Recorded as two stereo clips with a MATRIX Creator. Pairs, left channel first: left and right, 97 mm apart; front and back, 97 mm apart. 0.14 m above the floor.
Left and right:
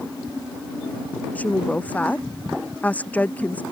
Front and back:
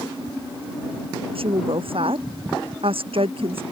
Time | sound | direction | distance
1.4 | a woman speaking | 165° left | ?